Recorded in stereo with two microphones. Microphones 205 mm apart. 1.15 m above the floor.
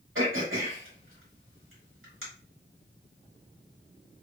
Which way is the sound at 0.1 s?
80° right.